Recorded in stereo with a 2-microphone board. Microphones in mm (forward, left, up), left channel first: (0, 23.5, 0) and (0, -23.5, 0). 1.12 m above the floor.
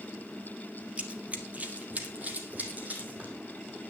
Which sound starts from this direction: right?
Running footsteps, at 1.0 s.